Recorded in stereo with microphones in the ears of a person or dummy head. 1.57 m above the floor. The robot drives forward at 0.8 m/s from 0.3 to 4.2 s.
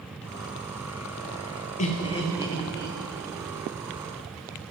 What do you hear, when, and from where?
1.8 s laughter: 35° left (ahead or behind), 0.6 m; by 3.0 s 15° left (ahead or behind), 1.4 m